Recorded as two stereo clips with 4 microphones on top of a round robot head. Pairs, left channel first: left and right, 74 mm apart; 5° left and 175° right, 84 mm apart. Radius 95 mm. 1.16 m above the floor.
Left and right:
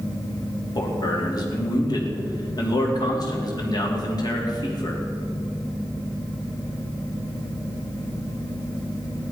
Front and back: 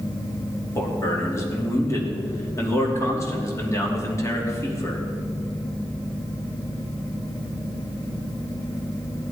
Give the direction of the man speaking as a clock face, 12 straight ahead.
10 o'clock.